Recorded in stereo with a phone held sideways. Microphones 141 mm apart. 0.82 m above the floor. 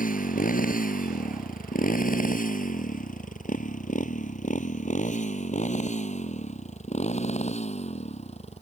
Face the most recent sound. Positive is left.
turn(degrees=50)  # may be behind; listen again after turning